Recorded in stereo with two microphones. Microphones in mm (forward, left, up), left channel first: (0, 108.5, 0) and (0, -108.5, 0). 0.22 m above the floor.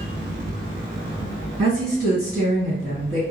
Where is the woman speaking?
35° right (ahead or behind), 1.9 m.